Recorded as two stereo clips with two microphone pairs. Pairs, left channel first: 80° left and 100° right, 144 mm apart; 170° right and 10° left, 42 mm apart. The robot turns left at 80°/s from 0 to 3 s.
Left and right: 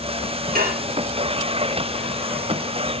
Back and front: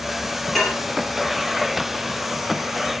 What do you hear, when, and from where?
0.6 s dishes clattering: 85° right, 4 m; by 0.8 s 105° right, 4 m